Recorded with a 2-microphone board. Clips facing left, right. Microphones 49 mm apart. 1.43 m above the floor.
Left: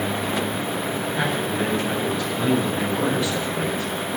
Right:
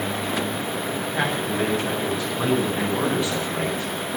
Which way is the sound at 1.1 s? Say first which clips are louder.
Right 1 dB; 15° right (ahead or behind).